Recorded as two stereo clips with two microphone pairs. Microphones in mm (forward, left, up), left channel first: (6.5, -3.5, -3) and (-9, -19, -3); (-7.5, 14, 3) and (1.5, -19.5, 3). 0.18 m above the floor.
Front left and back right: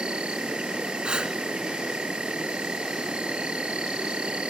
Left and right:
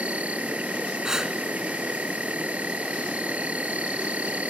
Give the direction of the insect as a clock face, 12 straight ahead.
4 o'clock.